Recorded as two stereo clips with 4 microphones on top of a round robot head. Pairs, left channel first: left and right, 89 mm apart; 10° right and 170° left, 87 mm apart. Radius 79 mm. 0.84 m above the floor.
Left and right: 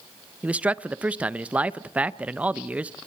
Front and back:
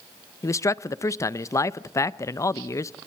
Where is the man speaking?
25° right, 0.6 m.